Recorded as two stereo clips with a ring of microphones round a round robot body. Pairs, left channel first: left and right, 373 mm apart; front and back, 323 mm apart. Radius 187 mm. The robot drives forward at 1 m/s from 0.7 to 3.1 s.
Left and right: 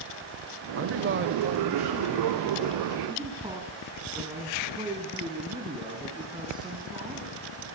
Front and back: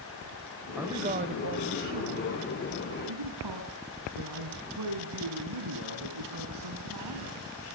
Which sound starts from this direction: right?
A man speaking, at 0.8 s.